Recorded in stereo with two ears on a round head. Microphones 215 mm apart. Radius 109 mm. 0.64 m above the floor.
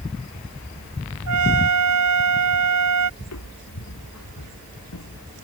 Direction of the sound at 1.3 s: 85° right.